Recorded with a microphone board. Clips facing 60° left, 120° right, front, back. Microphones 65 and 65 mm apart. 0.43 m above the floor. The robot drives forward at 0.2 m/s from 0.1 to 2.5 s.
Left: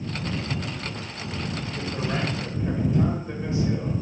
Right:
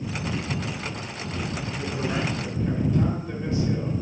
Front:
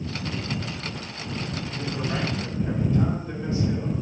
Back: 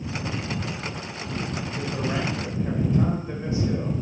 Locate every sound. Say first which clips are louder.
1.8 s a man speaking: even, back 1 dB; 115° left, 1.8 m; by 3.9 s 120° left, 1.9 m